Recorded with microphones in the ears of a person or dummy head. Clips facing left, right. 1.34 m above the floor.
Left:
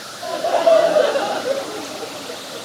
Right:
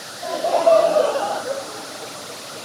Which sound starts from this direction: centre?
Laughter, at 0.2 s.